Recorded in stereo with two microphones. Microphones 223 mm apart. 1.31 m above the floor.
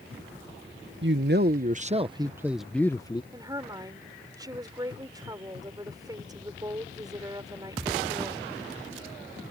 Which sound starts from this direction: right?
A man speaking, at 1.0 s.